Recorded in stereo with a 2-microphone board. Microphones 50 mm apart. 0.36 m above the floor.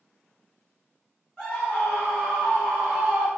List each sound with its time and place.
1.4 s a scream: 25° left (ahead or behind), 1.9 m; by 3.3 s 5° right (ahead or behind), 1.3 m